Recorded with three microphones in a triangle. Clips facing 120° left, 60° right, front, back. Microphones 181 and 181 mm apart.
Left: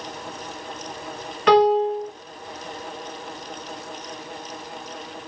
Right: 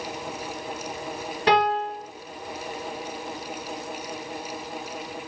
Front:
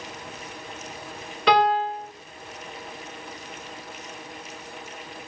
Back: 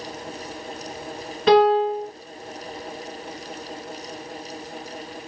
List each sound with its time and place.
1.5 s a piano: 115° right, 3 m